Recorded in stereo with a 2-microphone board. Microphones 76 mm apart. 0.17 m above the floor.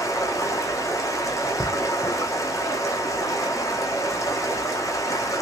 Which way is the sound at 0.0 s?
45° left (ahead or behind).